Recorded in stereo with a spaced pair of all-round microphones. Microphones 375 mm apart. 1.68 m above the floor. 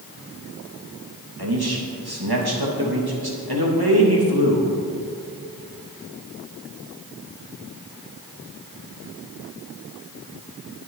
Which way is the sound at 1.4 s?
75° right (ahead or behind).